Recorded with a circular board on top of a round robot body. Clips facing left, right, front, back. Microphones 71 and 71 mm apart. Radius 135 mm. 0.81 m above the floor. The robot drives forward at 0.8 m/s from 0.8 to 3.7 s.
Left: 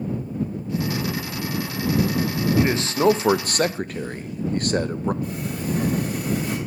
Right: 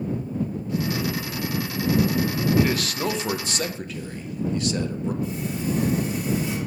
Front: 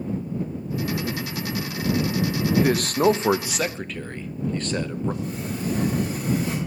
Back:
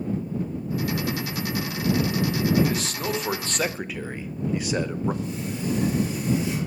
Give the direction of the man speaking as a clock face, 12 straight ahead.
11 o'clock.